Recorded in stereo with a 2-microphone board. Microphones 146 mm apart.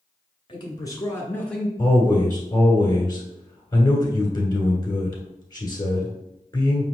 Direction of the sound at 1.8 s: 25° left (ahead or behind).